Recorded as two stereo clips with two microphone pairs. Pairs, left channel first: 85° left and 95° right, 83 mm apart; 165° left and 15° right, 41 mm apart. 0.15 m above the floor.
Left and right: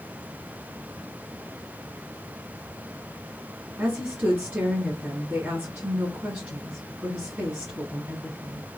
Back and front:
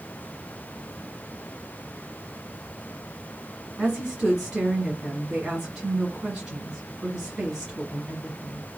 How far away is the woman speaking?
About 1.5 m.